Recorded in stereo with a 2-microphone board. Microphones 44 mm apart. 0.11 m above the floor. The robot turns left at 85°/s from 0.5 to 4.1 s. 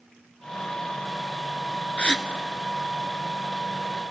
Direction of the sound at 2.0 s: 30° left (ahead or behind).